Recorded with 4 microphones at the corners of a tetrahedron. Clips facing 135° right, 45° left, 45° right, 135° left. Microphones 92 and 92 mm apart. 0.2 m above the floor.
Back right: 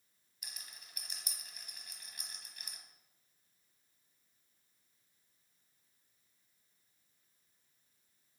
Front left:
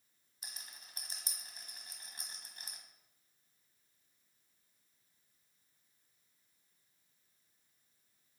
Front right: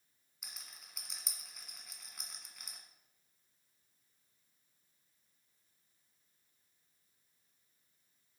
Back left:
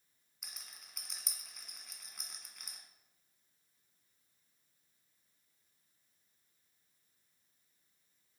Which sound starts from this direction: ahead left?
A rattle, at 0.4 s.